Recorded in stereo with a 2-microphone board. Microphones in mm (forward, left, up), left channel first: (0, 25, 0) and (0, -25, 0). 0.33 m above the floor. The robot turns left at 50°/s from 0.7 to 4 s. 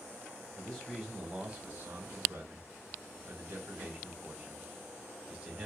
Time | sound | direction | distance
0.6 | a man speaking | 15° left | 1.8 m